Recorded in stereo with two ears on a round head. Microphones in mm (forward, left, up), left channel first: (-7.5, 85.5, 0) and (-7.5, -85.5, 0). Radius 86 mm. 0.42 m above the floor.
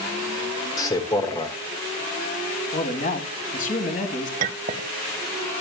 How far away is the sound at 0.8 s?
About 1.3 m.